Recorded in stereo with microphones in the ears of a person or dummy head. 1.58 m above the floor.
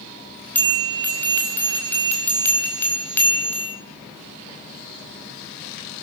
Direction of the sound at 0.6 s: 15° left (ahead or behind).